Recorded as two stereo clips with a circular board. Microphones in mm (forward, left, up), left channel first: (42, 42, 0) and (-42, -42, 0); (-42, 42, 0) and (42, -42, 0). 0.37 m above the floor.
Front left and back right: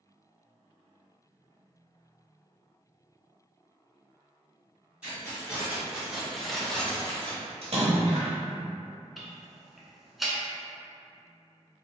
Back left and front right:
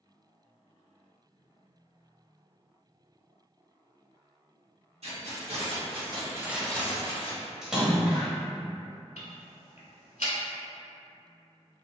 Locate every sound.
5.0 s keys jangling: 55° right, 1.7 m; by 7.4 s 120° left, 0.9 m
7.6 s a splash: 130° right, 1.0 m
9.2 s ticking: 135° left, 0.6 m